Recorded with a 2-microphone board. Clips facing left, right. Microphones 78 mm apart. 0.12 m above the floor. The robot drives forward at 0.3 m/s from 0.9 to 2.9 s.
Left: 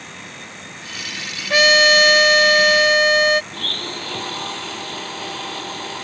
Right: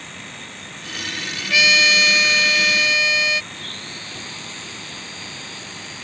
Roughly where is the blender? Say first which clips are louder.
Left 6 dB; left.